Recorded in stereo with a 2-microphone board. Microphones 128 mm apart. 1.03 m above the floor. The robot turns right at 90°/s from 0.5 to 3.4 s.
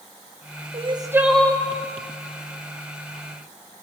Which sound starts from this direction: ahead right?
Crying, at 0.7 s.